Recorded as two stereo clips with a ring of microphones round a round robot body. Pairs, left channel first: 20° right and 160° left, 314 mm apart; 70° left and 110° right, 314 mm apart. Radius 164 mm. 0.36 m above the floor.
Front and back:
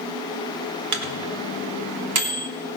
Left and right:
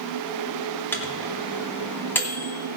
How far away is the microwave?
About 1.5 m.